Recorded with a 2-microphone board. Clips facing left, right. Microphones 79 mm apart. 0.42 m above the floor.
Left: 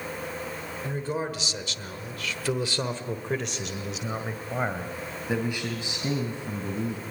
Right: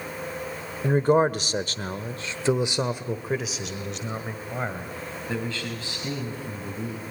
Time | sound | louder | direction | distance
0.8 | a man speaking | right 12 dB | 55° right (ahead or behind) | 1.3 m